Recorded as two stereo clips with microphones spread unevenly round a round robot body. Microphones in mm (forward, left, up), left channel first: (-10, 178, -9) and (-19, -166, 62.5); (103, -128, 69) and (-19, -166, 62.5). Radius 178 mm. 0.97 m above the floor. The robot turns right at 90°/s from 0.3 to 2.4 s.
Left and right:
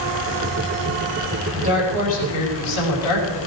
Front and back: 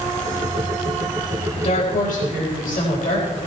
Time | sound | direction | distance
1.6 | a woman speaking | 30° right | 5 m